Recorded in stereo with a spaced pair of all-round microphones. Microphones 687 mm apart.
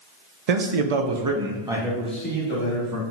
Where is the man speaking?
65° right (ahead or behind), 0.7 m; by 3.0 s 25° left (ahead or behind), 1.2 m.